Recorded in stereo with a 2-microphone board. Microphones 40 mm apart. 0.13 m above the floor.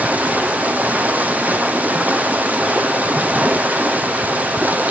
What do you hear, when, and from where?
0.0 s running water: 40° right (ahead or behind), 1.2 m